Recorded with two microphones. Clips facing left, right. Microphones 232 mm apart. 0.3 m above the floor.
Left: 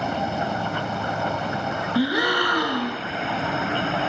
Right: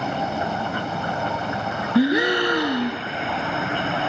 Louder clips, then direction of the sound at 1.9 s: Right 5 dB; 20° right (ahead or behind).